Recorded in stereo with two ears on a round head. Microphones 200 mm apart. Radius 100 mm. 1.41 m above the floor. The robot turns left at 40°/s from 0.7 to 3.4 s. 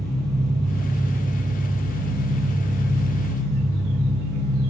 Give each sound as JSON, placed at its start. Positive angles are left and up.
{"t": 0.0, "sound": "an engine running", "azimuth_deg": 175, "distance_m": 5.0}